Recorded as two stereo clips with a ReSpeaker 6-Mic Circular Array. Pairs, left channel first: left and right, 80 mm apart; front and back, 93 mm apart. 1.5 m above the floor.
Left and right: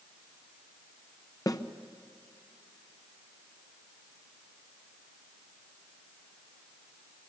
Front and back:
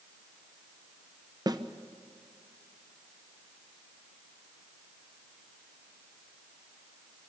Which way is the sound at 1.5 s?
135° left.